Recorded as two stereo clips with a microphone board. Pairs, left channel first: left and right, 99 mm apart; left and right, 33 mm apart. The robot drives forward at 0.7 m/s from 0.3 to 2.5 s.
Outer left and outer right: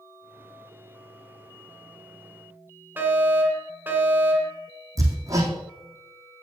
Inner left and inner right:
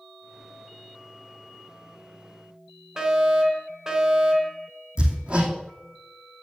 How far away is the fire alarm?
About 2.5 m.